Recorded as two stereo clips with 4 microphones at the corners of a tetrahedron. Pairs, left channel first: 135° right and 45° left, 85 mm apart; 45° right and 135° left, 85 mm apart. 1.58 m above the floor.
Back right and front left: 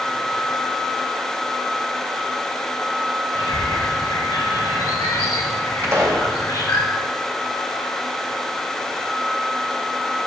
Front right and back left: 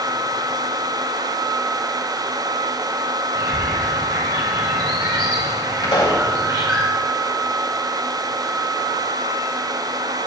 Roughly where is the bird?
Behind.